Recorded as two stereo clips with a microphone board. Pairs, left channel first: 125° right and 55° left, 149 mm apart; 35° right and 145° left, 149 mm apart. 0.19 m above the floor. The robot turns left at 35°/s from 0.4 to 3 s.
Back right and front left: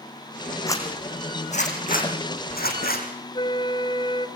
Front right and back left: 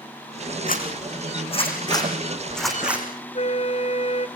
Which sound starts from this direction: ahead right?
A zipper, at 0.7 s.